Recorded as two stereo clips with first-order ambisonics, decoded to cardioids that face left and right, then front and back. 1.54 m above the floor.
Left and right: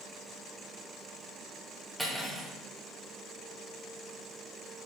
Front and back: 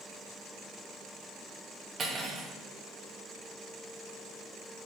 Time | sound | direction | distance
2.0 | cutlery clinking | straight behind | 0.6 m